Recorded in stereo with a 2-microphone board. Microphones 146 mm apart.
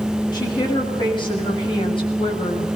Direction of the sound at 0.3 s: 30° left (ahead or behind).